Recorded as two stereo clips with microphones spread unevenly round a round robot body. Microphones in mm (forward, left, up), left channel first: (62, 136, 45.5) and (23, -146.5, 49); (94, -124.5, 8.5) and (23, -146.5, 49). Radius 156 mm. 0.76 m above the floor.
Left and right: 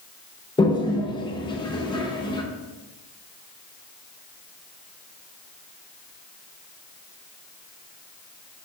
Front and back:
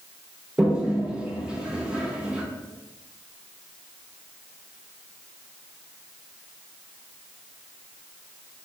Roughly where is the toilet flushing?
Ahead left.